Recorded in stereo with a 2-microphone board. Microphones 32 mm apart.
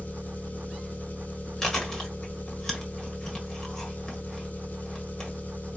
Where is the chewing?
15° left (ahead or behind), 1.6 m.